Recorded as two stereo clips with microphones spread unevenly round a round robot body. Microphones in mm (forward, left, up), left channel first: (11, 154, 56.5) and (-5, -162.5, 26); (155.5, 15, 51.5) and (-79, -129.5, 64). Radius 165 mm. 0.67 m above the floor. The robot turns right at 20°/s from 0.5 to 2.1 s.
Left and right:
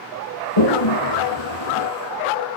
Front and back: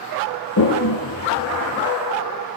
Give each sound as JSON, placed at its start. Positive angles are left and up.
{"t": 0.6, "sound": "a toilet flushing", "azimuth_deg": 85, "distance_m": 4.5}